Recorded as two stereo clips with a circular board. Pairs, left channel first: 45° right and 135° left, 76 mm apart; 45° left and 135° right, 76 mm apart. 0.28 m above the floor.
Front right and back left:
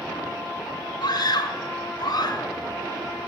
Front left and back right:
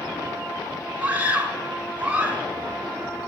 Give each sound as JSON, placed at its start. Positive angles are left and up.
{"t": 1.0, "sound": "a scream", "azimuth_deg": -65, "distance_m": 3.5}